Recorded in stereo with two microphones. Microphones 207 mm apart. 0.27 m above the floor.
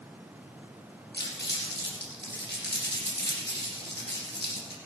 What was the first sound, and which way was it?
Crumpling, 55° left (ahead or behind).